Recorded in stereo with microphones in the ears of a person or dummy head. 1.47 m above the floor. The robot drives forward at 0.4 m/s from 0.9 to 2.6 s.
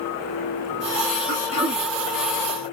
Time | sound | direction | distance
1.3 | throat clearing | 40° right (ahead or behind) | 1.3 m